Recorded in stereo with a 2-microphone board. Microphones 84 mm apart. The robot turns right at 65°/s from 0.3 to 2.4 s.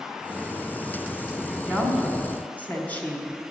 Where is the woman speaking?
5° left (ahead or behind), 1.3 m; by 3.5 s 20° left (ahead or behind), 1.3 m.